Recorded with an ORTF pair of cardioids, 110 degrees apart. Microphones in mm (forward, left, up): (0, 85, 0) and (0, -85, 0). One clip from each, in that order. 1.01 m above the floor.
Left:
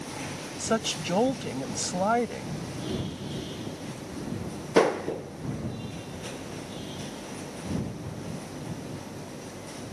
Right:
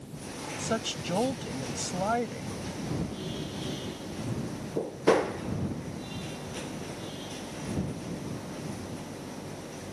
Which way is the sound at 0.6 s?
20° left.